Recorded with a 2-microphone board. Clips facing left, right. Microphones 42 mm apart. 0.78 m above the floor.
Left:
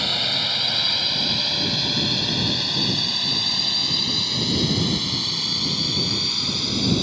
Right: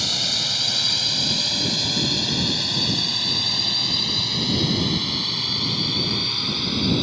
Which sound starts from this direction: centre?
A drone, at 0.0 s.